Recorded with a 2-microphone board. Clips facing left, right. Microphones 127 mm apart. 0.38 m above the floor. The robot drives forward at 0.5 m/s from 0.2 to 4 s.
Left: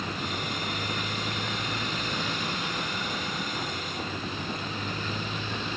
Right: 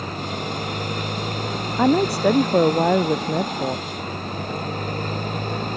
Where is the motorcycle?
45° right (ahead or behind).